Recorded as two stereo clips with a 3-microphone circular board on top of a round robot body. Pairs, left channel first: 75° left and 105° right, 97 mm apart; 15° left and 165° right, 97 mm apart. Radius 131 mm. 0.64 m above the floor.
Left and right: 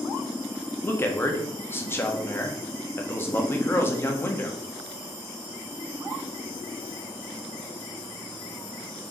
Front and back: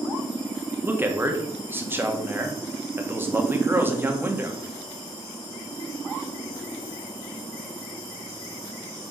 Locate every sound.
0.8 s a man speaking: 135° left, 1.6 m